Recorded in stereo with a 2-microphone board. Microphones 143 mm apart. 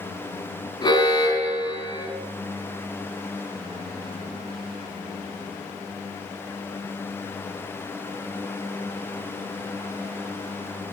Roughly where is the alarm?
Left.